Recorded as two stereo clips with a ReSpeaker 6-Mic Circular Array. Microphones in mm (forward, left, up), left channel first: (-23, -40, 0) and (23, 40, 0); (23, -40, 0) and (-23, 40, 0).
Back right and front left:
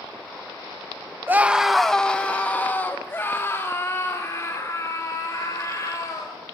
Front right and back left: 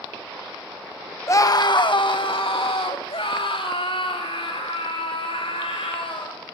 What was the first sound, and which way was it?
A scream, 5° right.